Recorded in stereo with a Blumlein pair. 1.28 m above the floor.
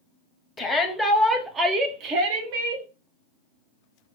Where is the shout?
15° left, 1.0 m; by 2.9 s 55° right, 1.2 m.